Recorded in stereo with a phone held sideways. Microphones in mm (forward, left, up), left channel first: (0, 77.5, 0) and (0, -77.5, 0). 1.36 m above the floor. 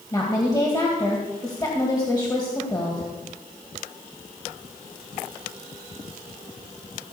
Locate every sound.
0.1 s a woman speaking: 25° left (ahead or behind), 2 m